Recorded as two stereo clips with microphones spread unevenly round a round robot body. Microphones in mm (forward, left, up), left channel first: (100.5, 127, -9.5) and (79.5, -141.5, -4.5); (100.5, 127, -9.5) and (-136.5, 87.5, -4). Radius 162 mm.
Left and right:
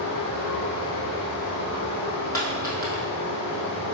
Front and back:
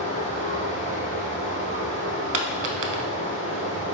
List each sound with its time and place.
0.0 s running water: 70° left, 1.2 m
2.3 s a dropped coin: 160° left, 0.6 m